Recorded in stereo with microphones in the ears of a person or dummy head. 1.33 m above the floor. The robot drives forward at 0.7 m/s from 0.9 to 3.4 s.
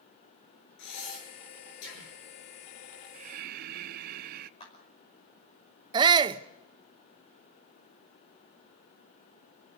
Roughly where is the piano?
No piano in this recording.